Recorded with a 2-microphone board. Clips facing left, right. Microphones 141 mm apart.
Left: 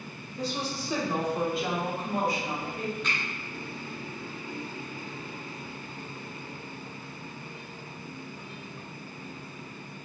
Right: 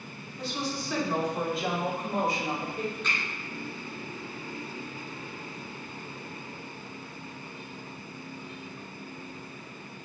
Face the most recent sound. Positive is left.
turn(degrees=10)  # may be behind; listen again after turning